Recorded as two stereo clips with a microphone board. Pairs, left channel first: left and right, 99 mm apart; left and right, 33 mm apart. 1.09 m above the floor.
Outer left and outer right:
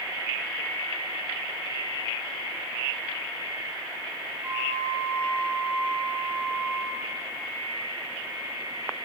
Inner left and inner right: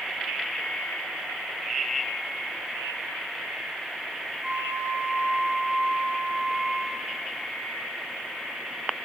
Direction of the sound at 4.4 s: 50° right (ahead or behind).